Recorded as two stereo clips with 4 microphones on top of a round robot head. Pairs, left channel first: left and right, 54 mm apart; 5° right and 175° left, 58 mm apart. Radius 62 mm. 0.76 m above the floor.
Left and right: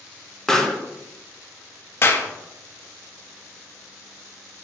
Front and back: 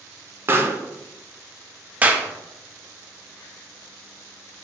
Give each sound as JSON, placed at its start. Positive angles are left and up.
{"t": 0.5, "sound": "a pop", "azimuth_deg": 165, "distance_m": 0.6}
{"t": 2.0, "sound": "a clap", "azimuth_deg": 115, "distance_m": 0.5}